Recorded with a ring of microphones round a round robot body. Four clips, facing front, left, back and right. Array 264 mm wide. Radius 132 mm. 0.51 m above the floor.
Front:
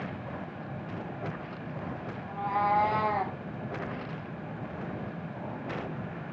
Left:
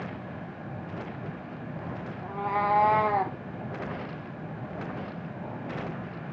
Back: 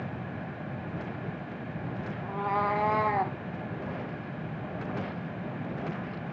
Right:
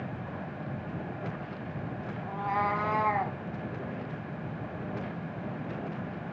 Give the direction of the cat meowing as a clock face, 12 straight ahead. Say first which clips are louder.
Left 2 dB, even; 8 o'clock.